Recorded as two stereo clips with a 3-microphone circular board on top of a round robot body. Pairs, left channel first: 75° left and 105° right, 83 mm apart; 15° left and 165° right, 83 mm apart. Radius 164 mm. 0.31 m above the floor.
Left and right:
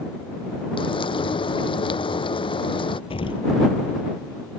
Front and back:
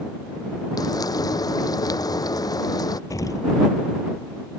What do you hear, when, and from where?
0.8 s frying: 60° left
3.1 s an explosion: 65° left